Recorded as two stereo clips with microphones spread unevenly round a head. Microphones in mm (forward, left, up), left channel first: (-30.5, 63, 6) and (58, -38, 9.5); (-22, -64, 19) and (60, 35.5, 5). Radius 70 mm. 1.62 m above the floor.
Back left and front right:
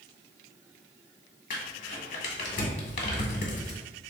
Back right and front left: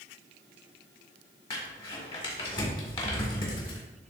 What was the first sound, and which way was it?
Crumpling, 175° left.